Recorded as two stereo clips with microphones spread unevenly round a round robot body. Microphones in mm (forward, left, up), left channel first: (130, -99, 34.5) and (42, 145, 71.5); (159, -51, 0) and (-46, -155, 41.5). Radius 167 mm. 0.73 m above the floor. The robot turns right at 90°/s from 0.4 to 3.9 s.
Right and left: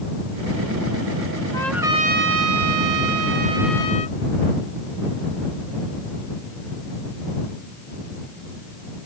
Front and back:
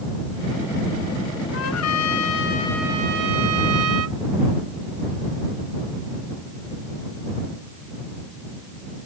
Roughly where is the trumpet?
Ahead.